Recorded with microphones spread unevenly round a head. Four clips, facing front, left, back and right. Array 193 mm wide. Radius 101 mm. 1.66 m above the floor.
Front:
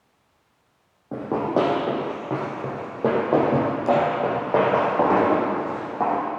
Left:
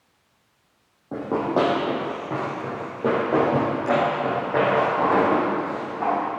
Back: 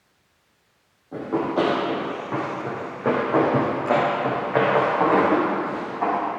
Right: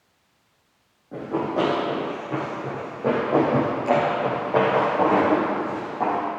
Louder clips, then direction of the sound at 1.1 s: Left 2 dB, front 1 dB; 40° left.